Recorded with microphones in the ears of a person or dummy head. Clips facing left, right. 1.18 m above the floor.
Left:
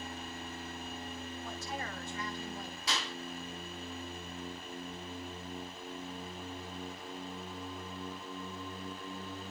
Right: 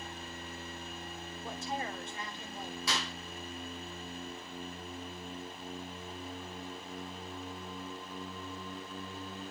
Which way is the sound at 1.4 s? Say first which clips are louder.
Right 6 dB; 25° right (ahead or behind).